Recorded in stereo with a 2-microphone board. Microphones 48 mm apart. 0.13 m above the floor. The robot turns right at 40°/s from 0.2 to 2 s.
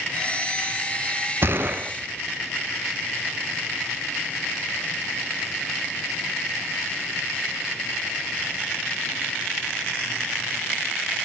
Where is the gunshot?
50° right (ahead or behind), 0.6 m; by 1.9 s 35° right (ahead or behind), 0.6 m.